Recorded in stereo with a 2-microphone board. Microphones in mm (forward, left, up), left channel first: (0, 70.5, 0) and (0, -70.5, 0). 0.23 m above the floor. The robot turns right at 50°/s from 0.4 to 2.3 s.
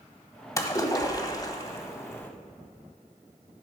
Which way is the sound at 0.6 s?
25° left (ahead or behind).